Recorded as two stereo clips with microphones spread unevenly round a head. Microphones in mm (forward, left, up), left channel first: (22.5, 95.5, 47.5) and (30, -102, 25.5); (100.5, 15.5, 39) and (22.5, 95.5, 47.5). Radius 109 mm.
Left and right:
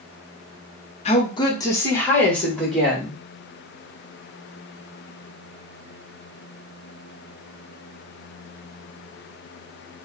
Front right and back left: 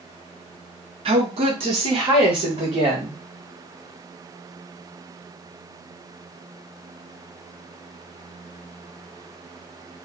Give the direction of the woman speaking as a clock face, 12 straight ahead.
7 o'clock.